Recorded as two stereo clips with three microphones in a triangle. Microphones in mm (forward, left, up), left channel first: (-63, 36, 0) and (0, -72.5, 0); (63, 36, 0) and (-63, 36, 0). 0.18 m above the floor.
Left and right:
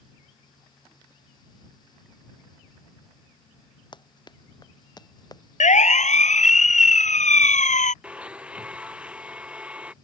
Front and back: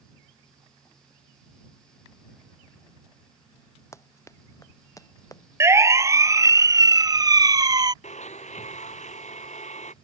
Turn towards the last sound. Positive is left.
turn(degrees=20)